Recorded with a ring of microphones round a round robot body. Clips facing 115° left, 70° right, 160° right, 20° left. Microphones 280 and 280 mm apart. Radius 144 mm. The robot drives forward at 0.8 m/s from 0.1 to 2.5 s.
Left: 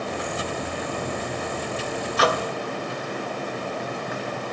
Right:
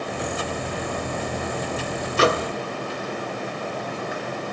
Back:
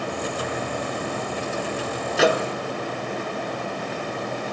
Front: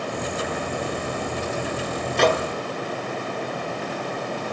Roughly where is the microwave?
Right.